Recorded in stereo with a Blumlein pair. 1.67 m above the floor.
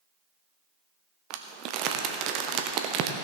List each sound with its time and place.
1.3 s crumpling: 40° right, 1.0 m